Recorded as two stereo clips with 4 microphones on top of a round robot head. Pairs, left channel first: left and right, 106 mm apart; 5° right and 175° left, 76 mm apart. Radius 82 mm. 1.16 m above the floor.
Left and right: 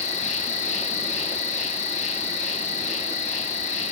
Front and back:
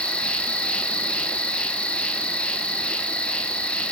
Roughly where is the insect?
Left.